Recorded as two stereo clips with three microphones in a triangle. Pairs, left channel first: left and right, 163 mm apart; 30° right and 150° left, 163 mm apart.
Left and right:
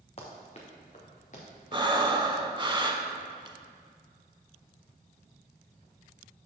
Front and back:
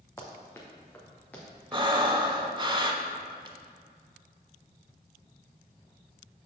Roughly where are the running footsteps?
Ahead left.